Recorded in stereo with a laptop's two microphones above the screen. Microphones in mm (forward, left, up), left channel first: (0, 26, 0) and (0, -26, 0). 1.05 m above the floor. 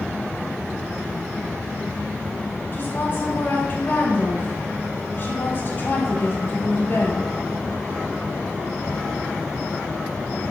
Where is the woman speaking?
40° left (ahead or behind), 4 m.